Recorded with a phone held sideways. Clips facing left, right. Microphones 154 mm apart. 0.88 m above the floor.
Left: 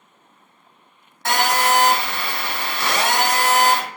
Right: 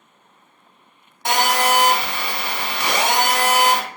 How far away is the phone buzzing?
About 1.0 m.